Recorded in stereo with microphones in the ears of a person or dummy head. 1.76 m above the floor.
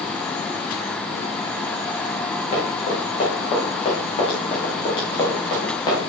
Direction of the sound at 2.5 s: 35° left (ahead or behind).